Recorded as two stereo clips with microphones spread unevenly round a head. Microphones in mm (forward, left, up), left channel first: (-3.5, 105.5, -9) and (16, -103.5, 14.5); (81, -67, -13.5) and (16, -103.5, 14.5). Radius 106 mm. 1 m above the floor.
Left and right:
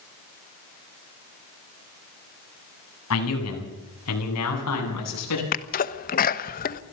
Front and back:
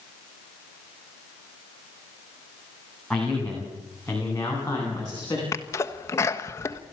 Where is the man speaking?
115° left, 8 m; by 5.4 s 105° left, 9 m.